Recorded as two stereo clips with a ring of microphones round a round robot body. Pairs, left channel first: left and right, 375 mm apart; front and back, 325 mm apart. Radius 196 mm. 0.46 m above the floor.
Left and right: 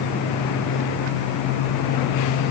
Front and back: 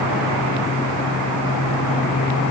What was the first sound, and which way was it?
Only background noise.